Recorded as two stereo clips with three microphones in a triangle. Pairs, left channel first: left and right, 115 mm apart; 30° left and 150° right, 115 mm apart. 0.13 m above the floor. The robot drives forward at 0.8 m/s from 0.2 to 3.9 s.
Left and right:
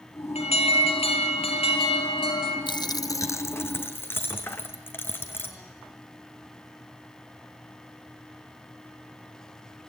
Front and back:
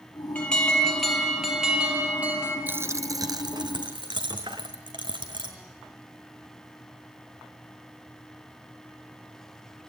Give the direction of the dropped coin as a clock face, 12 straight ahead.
7 o'clock.